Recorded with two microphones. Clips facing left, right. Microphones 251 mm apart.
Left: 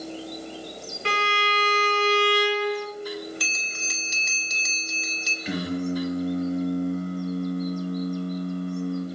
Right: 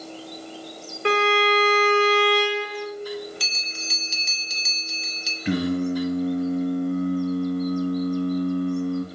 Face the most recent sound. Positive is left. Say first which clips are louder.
# right 5 dB
turn(degrees=-60)  # may be behind; listen again after turning